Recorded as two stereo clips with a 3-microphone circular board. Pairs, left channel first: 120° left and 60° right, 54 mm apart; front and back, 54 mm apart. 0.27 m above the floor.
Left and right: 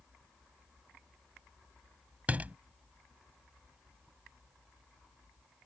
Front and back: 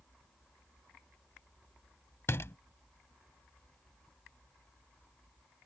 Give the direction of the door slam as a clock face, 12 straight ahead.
12 o'clock.